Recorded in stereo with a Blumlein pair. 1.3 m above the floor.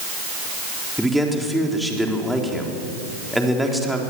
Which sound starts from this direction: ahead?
A man speaking, at 1.0 s.